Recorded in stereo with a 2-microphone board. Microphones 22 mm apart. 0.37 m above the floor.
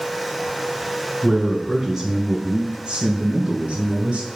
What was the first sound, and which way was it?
A man speaking, 5° right (ahead or behind).